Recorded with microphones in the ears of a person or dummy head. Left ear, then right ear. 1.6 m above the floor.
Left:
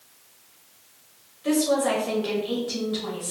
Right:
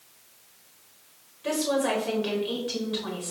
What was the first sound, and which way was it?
A woman speaking, 20° right (ahead or behind).